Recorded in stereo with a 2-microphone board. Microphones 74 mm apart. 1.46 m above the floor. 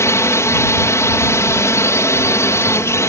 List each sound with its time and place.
0.0 s a drone: 40° left (ahead or behind)